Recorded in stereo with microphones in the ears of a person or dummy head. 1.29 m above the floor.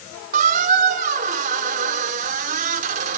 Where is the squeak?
45° right (ahead or behind), 1.6 m.